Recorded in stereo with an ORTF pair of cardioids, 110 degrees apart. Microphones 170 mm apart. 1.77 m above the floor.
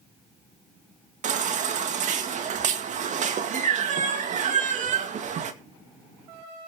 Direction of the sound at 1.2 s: 50° right.